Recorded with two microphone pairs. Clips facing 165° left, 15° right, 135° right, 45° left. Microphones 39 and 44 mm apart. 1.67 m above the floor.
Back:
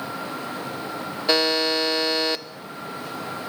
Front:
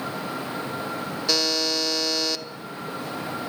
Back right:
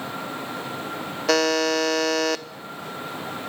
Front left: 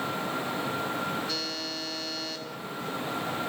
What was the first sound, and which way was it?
A buzzer, 135° right.